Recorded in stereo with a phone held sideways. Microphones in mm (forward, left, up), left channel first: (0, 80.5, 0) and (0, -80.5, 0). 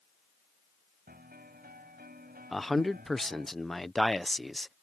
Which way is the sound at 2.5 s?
Centre (ahead or behind).